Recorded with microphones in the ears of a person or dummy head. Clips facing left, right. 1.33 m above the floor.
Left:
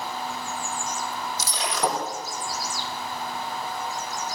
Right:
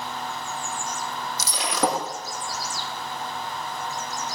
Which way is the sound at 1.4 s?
80° right.